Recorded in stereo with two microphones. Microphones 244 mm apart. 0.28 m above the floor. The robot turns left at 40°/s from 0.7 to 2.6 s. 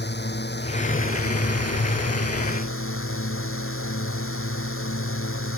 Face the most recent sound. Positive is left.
turn(degrees=60)